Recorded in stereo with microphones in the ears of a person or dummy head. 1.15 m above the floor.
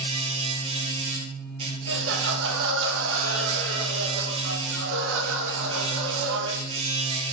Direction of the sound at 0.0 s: 30° right (ahead or behind).